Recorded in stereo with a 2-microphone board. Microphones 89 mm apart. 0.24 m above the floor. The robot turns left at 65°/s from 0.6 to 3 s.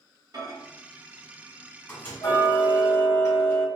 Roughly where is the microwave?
Right.